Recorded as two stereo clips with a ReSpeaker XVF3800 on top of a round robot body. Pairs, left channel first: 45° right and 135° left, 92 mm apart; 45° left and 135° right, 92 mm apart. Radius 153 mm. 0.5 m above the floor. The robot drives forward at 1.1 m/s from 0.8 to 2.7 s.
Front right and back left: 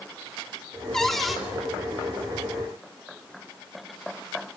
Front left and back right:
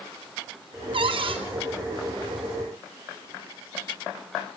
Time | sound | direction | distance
0.9 | a cupboard door | 130° right | 3.5 m